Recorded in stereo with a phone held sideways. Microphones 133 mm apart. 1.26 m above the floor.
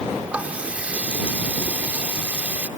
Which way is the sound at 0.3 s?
10° right (ahead or behind).